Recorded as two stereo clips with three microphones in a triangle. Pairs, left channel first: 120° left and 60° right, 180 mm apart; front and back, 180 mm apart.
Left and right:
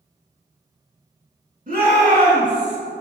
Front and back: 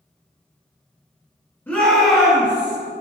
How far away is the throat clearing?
I don't hear throat clearing.